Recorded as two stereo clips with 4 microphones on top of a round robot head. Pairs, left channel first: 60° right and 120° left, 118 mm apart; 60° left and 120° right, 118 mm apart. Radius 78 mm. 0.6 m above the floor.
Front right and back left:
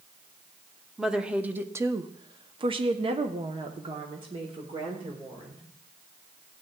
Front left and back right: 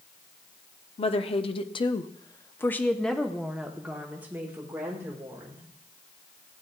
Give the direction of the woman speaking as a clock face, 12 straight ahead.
11 o'clock.